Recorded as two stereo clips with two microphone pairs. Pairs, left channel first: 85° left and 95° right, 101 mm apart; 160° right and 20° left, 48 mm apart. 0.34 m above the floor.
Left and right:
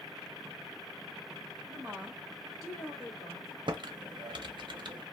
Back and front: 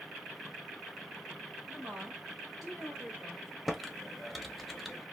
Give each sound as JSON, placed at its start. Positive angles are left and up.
{"t": 1.7, "sound": "a woman speaking", "azimuth_deg": -30, "distance_m": 1.8}
{"t": 3.7, "sound": "typing on a keyboard", "azimuth_deg": -75, "distance_m": 0.5}